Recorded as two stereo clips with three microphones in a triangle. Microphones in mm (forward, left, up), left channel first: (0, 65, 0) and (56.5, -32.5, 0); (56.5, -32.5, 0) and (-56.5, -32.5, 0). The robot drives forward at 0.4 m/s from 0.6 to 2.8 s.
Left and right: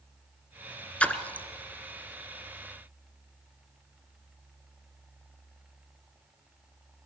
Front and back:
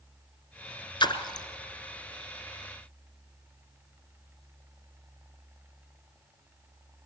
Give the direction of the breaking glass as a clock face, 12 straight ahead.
I don't hear breaking glass.